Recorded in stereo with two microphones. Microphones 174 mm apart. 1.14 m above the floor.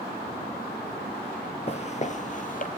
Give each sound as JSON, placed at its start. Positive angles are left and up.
{"t": 1.7, "sound": "footsteps", "side_deg": 40, "distance_m": 1.3}